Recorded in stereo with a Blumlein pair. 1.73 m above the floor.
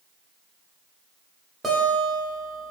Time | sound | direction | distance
1.6 | a guitar | 15° right | 1.0 m